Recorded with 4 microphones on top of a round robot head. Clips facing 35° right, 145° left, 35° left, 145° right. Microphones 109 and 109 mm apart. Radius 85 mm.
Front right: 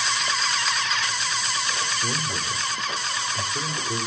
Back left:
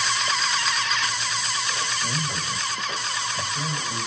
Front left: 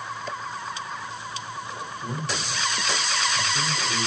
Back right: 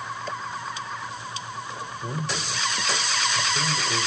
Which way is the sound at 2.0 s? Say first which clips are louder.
Front right 1 dB, even; 50° right.